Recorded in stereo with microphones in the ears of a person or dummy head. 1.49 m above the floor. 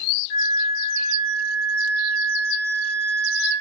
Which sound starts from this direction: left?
A flute, at 0.3 s.